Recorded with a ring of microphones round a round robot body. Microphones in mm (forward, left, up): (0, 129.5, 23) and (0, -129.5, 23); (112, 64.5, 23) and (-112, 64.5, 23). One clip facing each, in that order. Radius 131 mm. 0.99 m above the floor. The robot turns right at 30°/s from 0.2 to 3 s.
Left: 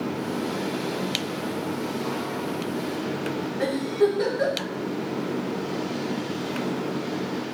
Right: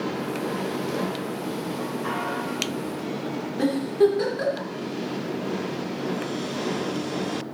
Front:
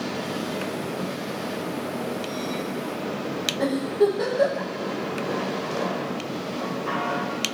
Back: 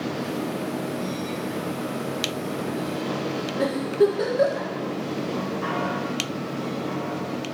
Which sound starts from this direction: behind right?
A giggle, at 3.6 s.